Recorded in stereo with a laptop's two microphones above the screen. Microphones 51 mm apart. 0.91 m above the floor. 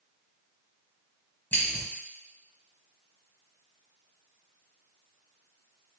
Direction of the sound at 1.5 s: 35° left (ahead or behind).